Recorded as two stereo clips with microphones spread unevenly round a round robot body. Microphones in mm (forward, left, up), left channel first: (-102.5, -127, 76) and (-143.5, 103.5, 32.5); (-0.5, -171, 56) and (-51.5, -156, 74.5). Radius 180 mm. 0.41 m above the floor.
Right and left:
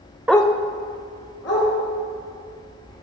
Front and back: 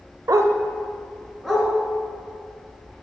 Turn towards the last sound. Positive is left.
turn(degrees=-95)